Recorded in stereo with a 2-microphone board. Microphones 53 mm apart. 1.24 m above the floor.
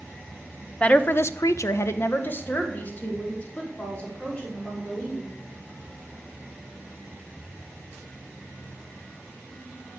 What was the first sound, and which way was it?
A woman speaking, 25° left (ahead or behind).